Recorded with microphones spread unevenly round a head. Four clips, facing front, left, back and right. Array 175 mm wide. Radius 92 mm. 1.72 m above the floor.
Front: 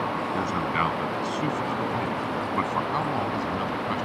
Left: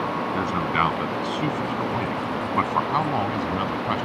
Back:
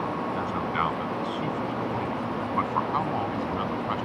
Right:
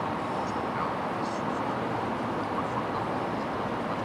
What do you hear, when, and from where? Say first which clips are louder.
0.3 s a man speaking: left 6 dB, front 3 dB; 65° left; by 4.1 s 80° left